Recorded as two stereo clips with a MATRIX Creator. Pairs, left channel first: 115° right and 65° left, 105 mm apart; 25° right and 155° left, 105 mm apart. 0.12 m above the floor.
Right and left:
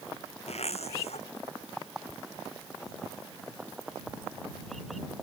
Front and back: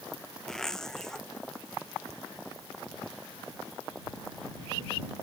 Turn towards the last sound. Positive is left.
turn(degrees=-105)